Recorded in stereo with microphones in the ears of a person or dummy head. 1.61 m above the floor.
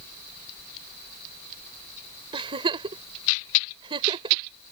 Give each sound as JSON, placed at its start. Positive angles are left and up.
{"t": 2.3, "sound": "a giggle", "side_deg": -30}